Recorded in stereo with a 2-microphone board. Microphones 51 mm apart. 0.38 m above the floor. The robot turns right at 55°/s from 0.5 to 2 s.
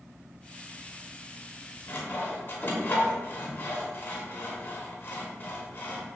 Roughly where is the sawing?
Left.